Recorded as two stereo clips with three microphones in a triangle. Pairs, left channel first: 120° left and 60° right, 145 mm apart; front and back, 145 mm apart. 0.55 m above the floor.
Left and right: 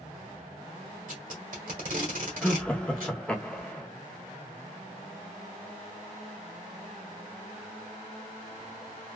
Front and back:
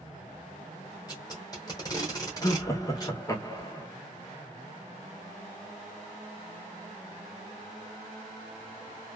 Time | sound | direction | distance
1.1 | tape being pulled | 60° right | 1.2 m
2.4 | laughter | 45° left | 0.7 m